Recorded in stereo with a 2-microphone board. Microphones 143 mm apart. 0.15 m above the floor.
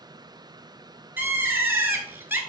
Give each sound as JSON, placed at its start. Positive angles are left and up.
{"t": 1.2, "sound": "a bird", "side_deg": -15, "distance_m": 0.6}